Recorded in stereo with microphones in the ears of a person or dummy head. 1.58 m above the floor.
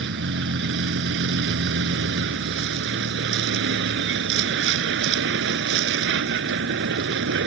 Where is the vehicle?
65° right (ahead or behind).